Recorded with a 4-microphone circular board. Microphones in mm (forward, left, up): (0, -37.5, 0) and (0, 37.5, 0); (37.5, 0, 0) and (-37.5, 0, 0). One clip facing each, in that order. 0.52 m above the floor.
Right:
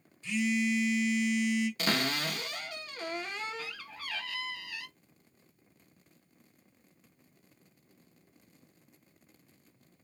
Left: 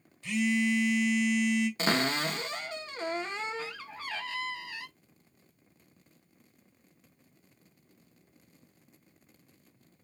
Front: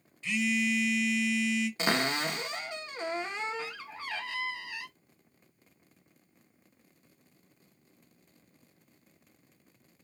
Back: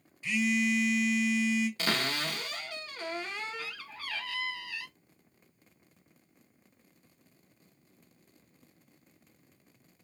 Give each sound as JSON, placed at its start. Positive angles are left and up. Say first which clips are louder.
{"t": 0.2, "sound": "a phone buzzing", "louder": "left 2 dB, back 1 dB", "azimuth_deg": 100, "distance_m": 1.0}
{"t": 1.8, "sound": "a cupboard door", "louder": "left 3 dB, front 3 dB", "azimuth_deg": 50, "distance_m": 0.5}